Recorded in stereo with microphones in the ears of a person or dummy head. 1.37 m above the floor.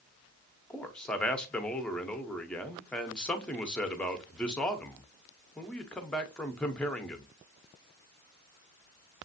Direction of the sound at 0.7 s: 10° left (ahead or behind).